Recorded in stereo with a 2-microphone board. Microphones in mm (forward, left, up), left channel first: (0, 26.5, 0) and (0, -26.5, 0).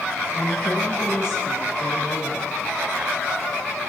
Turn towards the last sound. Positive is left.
turn(degrees=55)  # may be behind; listen again after turning